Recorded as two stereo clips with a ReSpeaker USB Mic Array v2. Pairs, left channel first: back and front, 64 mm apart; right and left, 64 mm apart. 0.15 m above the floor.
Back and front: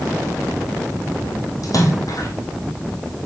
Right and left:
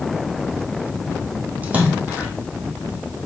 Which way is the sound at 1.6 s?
155° left.